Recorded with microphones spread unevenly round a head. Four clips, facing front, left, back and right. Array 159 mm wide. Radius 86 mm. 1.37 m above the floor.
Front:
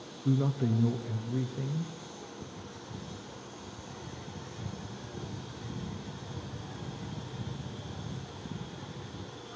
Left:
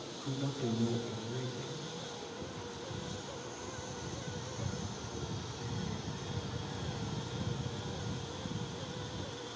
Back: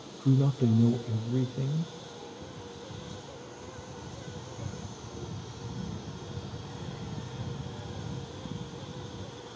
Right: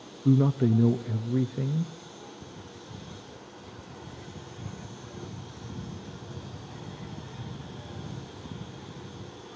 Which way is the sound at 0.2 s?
90° right.